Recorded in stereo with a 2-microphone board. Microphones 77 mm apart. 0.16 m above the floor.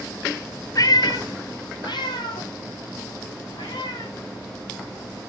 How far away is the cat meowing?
About 0.6 m.